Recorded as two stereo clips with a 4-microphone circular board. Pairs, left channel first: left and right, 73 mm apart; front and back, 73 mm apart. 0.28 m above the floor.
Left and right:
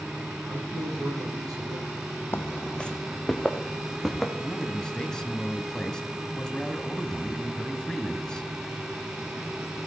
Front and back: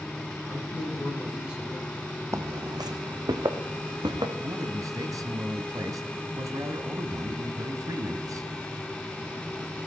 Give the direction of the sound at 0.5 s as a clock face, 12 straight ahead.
3 o'clock.